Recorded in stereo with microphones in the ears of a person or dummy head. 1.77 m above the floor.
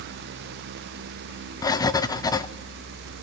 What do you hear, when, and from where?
1.6 s writing: 25° left (ahead or behind), 0.7 m